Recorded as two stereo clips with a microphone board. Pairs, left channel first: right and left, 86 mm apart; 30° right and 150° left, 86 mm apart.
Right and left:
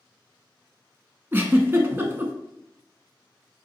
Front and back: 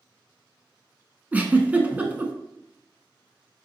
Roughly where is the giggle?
Left.